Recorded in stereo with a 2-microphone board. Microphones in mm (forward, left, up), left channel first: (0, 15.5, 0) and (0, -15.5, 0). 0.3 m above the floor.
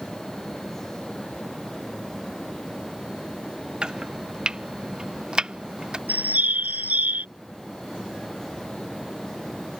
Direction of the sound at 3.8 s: 35° right (ahead or behind).